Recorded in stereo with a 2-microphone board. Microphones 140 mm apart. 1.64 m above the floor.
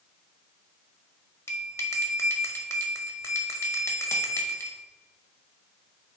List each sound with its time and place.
1.5 s a bell: 20° left (ahead or behind), 1.4 m